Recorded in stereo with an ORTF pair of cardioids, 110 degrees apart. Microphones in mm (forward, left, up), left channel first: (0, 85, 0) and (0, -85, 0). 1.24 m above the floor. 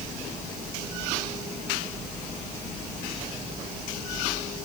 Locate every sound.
Only background noise.